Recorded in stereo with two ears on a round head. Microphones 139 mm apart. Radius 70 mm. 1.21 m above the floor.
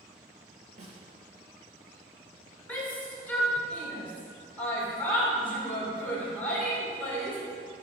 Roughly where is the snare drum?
Right.